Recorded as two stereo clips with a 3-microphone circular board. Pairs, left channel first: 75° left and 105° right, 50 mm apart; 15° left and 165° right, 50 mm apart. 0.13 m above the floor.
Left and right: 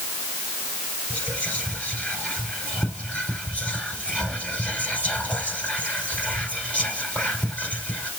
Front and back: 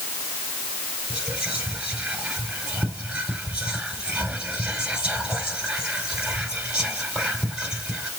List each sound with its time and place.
1.1 s whispering: 130° left, 1.6 m